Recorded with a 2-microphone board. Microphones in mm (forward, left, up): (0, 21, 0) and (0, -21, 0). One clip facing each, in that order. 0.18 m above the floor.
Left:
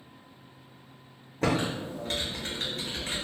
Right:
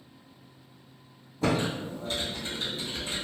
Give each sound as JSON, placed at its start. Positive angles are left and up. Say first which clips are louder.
{"t": 1.4, "sound": "typing on a keyboard", "louder": "even", "side_deg": 55, "distance_m": 1.4}